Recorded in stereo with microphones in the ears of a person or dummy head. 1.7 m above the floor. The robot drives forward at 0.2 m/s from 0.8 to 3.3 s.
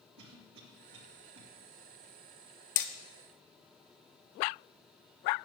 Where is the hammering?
50° left (ahead or behind), 0.5 m.